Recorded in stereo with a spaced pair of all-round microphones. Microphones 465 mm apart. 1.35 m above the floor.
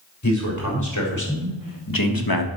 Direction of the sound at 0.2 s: 35° left (ahead or behind).